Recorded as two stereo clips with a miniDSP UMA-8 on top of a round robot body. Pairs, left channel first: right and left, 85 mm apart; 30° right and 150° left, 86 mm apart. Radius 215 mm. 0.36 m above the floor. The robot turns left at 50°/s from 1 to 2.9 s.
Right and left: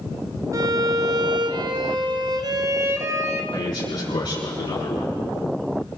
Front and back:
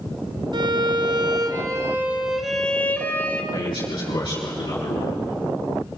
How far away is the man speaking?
About 5.5 m.